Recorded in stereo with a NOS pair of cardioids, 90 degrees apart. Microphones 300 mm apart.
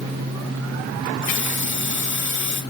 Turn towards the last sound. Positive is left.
turn(degrees=40)